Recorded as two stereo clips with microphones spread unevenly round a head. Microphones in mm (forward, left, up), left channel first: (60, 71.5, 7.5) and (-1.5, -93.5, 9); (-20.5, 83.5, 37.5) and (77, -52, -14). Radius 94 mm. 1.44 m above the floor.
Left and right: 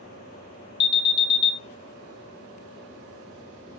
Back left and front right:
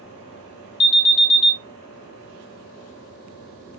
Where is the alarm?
100° left, 0.7 m.